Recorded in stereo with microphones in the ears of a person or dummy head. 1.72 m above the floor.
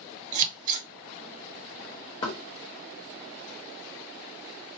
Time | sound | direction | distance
0.3 | scissors | 45° right (ahead or behind) | 0.7 m
2.2 | knocking | 20° left (ahead or behind) | 1.0 m